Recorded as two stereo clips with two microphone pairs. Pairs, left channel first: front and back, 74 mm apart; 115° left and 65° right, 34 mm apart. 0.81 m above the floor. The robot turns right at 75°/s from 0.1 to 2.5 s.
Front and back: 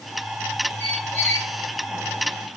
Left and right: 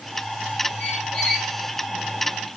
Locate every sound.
0.8 s a squeak: 45° left, 1.5 m; by 1.5 s 100° left, 1.5 m